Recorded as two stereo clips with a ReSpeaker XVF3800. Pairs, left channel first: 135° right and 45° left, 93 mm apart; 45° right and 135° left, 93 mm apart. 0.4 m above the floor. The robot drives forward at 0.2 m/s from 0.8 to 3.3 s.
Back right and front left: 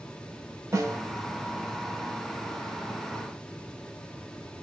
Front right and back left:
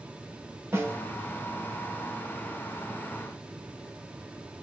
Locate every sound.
0.7 s a snare drum: 80° left, 0.6 m; by 1.0 s 90° left, 0.6 m